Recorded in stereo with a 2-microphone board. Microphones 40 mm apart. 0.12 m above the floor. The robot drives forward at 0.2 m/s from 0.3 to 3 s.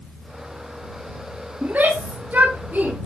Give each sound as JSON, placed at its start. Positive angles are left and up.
{"t": 1.6, "sound": "a shout", "side_deg": -40, "distance_m": 7.0}